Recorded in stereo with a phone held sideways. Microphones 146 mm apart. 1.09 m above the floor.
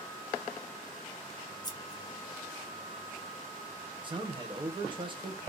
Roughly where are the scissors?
Left.